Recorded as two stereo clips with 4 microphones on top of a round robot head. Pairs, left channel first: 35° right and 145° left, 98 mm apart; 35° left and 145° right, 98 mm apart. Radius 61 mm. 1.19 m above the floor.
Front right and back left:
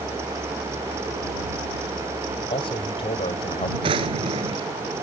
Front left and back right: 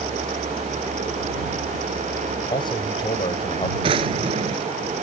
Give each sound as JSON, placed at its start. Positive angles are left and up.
{"t": 2.5, "sound": "a man speaking", "azimuth_deg": -5}
{"t": 3.8, "sound": "a drawer", "azimuth_deg": 180}